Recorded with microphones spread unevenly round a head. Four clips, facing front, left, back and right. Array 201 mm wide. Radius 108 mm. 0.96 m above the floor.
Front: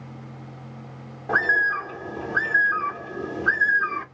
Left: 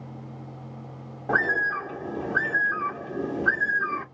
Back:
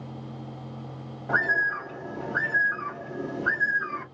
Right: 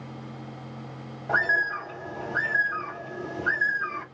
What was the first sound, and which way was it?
A bird, 80° left.